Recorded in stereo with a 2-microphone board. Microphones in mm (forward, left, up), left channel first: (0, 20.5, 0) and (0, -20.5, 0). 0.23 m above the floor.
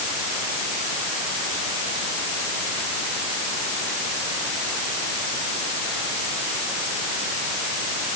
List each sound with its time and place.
Only background noise.